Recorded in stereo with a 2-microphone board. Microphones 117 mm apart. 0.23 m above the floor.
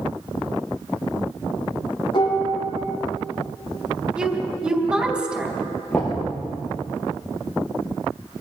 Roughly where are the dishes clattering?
Left.